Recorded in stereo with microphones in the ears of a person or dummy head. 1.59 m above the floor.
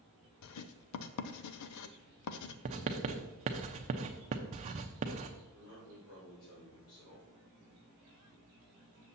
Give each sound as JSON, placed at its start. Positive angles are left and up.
{"t": 0.4, "sound": "writing", "side_deg": 80, "distance_m": 0.5}
{"t": 2.6, "sound": "writing", "side_deg": -35, "distance_m": 0.7}
{"t": 5.5, "sound": "a man speaking", "side_deg": 80, "distance_m": 4.0}